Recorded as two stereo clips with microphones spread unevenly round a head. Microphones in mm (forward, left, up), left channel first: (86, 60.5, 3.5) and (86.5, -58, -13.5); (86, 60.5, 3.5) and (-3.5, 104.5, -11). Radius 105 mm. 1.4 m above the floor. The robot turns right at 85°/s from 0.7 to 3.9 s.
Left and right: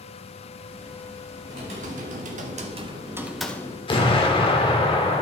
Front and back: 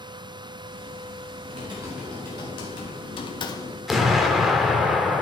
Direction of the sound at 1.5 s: 160° right.